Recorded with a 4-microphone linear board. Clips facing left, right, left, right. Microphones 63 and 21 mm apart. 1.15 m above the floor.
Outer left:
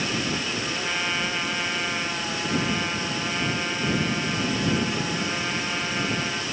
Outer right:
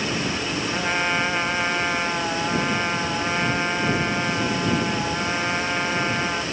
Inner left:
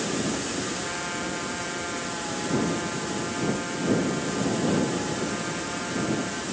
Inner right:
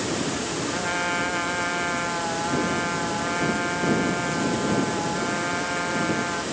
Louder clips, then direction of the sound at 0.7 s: Outer right 6 dB, inner right 5 dB; 25° right (ahead or behind).